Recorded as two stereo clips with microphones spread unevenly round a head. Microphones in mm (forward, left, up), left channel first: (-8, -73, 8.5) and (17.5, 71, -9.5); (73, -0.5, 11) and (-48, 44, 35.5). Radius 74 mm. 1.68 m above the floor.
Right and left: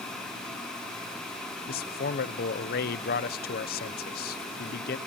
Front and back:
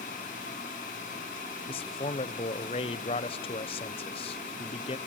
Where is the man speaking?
75° right, 1.0 m.